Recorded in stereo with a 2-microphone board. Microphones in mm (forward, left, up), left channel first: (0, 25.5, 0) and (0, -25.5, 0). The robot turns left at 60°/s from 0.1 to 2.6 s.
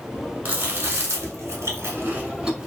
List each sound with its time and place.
0.5 s chewing: 35° right (ahead or behind), 1.1 m; by 2.7 s 10° right (ahead or behind), 1.1 m